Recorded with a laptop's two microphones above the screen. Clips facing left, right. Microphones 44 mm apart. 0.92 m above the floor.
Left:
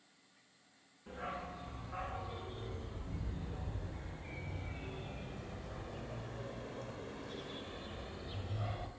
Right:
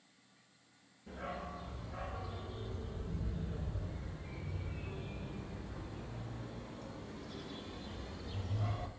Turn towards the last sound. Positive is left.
turn(degrees=15)  # may be behind; listen again after turning